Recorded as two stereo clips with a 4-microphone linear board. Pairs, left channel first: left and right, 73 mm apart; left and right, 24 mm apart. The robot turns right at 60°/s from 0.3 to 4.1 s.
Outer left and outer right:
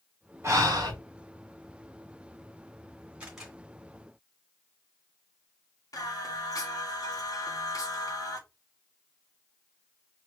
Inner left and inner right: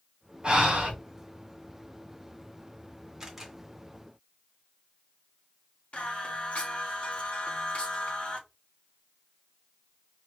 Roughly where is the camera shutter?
Centre.